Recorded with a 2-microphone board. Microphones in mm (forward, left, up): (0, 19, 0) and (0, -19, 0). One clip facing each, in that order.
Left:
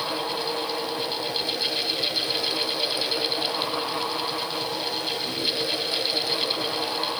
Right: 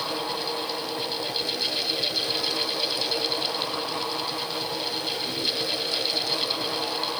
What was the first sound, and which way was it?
Only background noise.